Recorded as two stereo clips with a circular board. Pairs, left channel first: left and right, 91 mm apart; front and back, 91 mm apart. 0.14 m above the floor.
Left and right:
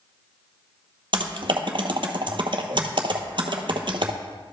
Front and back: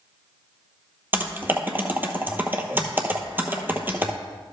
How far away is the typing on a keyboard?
About 0.9 m.